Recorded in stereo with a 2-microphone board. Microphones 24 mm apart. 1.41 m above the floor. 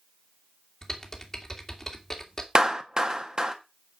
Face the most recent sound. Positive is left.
turn(degrees=-35)  # may be behind; listen again after turning